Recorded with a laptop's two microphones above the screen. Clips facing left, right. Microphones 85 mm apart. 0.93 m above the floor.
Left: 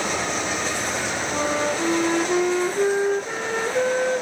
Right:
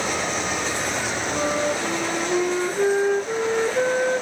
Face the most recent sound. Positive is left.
turn(degrees=50)  # may be behind; listen again after turning